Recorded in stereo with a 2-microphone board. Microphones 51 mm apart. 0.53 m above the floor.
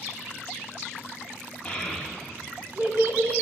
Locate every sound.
1.6 s a child speaking: 15° left (ahead or behind), 0.9 m; by 3.3 s 55° right (ahead or behind), 1.4 m